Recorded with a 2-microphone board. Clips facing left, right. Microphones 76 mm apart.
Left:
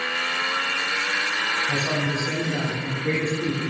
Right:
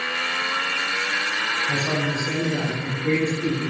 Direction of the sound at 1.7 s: 15° left (ahead or behind).